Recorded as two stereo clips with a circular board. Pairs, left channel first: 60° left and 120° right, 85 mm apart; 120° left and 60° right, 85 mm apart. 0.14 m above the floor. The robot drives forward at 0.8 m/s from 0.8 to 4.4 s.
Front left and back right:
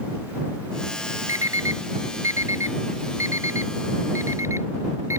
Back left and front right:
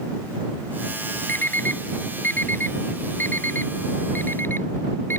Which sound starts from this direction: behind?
An alarm clock, at 1.3 s.